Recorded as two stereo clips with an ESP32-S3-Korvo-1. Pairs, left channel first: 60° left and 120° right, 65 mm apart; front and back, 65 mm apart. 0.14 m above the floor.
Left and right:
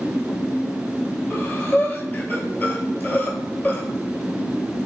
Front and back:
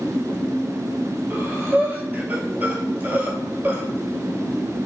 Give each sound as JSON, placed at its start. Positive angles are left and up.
{"t": 1.3, "sound": "breathing", "azimuth_deg": 120, "distance_m": 0.5}